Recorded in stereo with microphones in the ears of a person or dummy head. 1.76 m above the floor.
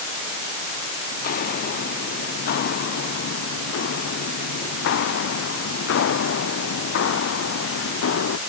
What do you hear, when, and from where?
1.1 s footsteps: 60° left (ahead or behind); by 8.4 s 85° left